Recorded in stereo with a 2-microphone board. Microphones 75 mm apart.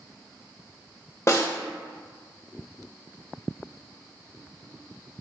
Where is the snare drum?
40° left (ahead or behind), 0.8 m.